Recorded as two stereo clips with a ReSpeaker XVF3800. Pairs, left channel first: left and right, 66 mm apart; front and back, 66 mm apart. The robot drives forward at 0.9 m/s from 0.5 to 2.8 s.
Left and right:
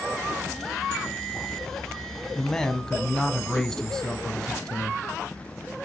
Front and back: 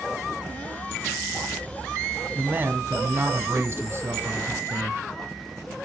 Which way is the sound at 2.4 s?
150° left.